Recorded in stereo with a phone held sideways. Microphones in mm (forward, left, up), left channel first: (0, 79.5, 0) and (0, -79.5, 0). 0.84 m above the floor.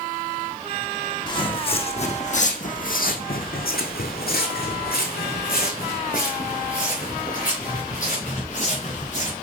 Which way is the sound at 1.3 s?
30° left (ahead or behind).